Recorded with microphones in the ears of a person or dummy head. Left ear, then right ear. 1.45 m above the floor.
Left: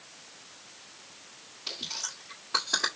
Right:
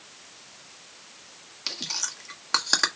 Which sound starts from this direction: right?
Chewing, at 1.7 s.